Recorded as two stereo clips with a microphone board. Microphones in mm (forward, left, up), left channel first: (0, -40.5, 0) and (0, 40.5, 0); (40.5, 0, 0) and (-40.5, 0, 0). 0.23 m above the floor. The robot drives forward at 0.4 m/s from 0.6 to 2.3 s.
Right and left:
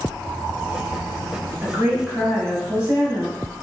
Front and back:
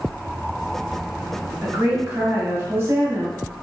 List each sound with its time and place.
1.6 s a woman speaking: 135° left, 1.0 m; by 3.6 s 155° left, 1.2 m